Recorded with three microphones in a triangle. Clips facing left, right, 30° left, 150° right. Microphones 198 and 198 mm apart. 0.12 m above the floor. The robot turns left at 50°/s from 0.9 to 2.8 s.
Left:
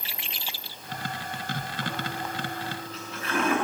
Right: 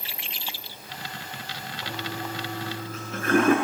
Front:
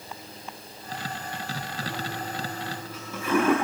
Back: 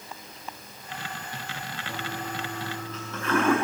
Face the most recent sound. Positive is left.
turn(degrees=-50)